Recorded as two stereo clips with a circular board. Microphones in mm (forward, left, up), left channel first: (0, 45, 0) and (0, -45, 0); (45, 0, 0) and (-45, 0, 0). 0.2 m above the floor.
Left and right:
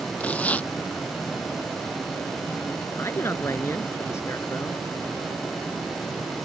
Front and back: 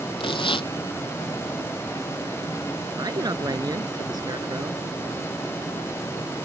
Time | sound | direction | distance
0.2 | tearing paper | 15° left | ?
3.0 | a man speaking | 145° left | ?